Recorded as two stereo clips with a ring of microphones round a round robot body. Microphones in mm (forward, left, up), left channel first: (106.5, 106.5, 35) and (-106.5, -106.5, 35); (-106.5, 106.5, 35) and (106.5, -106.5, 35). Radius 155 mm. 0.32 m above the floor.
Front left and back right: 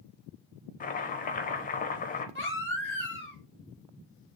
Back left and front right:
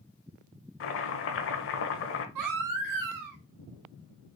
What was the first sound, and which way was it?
Chopping, 100° left.